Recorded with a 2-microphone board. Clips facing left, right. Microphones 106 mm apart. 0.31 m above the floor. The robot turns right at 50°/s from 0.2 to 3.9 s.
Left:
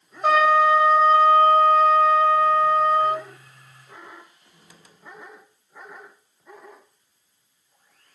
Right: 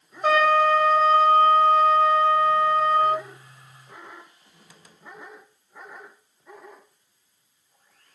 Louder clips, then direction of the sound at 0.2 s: Left 2 dB; 5° left.